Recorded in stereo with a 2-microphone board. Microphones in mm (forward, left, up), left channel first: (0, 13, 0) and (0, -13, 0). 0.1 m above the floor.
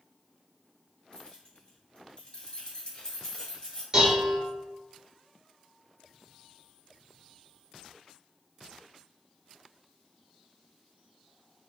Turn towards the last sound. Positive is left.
turn(degrees=-30)  # may be behind; listen again after turning